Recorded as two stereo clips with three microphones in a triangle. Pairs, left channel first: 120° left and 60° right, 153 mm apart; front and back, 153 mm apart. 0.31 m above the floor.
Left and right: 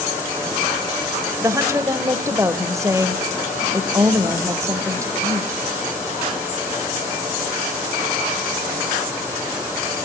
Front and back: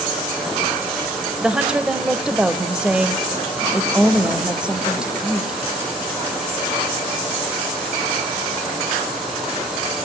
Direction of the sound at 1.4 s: 105° right.